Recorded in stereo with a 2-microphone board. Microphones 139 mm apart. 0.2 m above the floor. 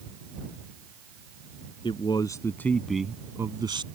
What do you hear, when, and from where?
1.8 s a man speaking: 40° left (ahead or behind); by 3.9 s 35° right (ahead or behind)